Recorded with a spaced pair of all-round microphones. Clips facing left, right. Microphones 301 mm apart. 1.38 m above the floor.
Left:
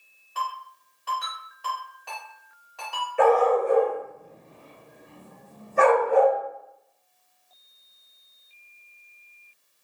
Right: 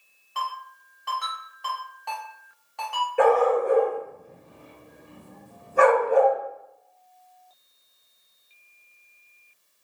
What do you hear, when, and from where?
0.3 s a ringtone: 5° left (ahead or behind), 1.7 m
3.2 s a dog barking: 65° right (ahead or behind), 1.9 m